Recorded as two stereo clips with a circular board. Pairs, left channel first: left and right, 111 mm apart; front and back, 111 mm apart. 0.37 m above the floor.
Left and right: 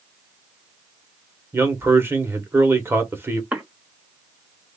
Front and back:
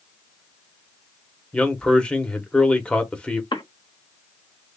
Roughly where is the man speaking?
Ahead right.